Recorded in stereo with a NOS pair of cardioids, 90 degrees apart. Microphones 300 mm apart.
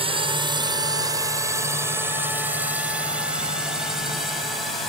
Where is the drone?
20° right; by 4.9 s straight ahead.